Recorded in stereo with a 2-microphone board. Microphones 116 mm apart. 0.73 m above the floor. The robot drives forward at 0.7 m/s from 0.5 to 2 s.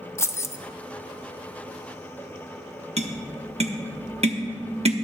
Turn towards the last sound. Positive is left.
turn(degrees=-65)  # may be behind; listen again after turning